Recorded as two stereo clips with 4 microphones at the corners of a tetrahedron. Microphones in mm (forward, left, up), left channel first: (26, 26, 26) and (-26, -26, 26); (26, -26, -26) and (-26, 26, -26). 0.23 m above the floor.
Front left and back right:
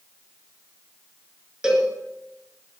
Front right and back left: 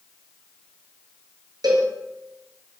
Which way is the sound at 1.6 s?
145° left.